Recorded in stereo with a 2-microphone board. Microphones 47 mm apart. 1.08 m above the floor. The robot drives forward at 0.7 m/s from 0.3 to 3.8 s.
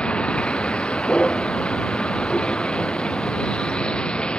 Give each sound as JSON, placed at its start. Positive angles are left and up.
{"t": 0.0, "sound": "a vehicle", "side_deg": 25}